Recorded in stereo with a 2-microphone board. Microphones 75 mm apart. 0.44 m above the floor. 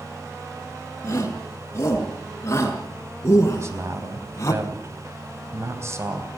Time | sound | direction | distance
1.0 | a shout | 35° left (ahead or behind) | 6 m
3.5 | a man speaking | 40° right (ahead or behind) | 3 m